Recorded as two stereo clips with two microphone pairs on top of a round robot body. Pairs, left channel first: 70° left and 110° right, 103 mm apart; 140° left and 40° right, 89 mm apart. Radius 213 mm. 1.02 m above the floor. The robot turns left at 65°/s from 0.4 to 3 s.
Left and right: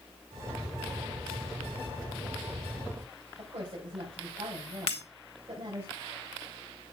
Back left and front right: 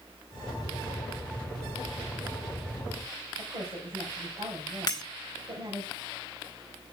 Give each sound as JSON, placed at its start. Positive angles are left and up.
{"t": 3.4, "sound": "a woman speaking", "azimuth_deg": -75, "distance_m": 4.5}
{"t": 4.9, "sound": "breaking glass", "azimuth_deg": 95, "distance_m": 1.3}